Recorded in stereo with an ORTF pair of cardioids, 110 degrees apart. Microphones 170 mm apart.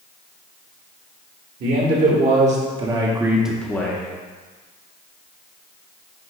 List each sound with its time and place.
1.6 s a man speaking: 65° right, 1.6 m; by 4.1 s 30° left, 1.0 m